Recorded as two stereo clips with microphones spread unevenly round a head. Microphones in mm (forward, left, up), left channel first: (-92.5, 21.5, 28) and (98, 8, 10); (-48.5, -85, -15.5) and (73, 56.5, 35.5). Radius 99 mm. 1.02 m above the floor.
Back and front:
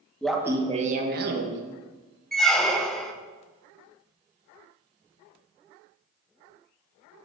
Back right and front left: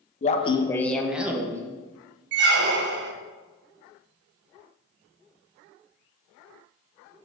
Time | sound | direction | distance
0.2 | laughter | 95° right | 0.7 m
2.3 | a squeak | 90° left | 0.5 m